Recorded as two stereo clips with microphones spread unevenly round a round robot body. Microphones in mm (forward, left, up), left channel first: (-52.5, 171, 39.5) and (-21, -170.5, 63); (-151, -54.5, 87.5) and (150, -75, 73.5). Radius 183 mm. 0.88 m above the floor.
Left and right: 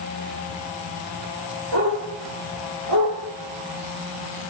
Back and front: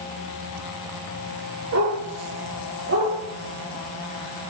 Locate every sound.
1.7 s a dog barking: 40° right, 8.5 m; by 3.1 s 45° right, 9.5 m